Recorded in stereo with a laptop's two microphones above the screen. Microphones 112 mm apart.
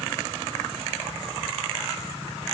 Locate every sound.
Only background noise.